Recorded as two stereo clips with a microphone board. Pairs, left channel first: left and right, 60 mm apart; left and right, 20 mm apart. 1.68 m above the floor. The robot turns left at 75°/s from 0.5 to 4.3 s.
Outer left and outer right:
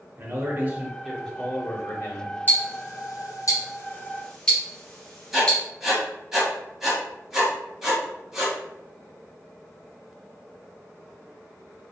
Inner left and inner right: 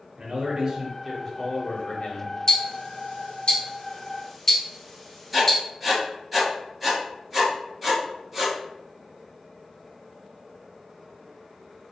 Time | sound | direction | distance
0.2 | a man speaking | 135° right | 0.8 m
2.5 | ticking | 25° left (ahead or behind) | 0.7 m
5.3 | writing | 10° right (ahead or behind) | 1.2 m